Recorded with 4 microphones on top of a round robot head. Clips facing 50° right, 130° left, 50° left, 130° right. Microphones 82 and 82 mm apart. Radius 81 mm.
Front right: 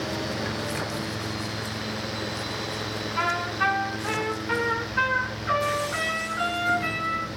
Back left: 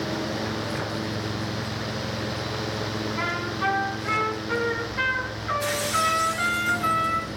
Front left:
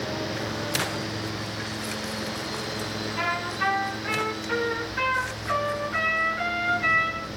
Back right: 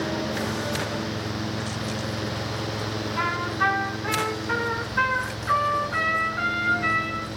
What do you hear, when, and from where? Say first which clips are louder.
3.2 s a trumpet: front right 5 dB, back right 3 dB; 80° right, 6 m